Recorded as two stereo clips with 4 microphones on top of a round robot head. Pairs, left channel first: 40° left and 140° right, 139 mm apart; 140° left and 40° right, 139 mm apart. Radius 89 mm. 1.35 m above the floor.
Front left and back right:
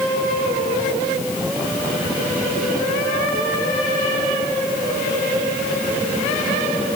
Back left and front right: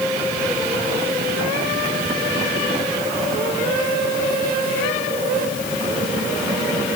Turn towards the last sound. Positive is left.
No sound to turn to.